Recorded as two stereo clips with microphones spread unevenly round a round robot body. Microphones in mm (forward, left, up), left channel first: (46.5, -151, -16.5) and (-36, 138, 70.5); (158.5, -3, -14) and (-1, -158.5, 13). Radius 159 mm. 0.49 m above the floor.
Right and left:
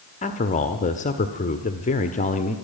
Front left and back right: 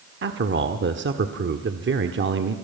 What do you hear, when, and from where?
0.2 s a man speaking: 115° right, 1.4 m